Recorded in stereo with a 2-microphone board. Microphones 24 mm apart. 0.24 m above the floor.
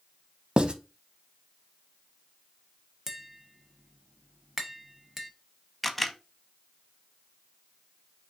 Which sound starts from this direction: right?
Writing, at 0.6 s.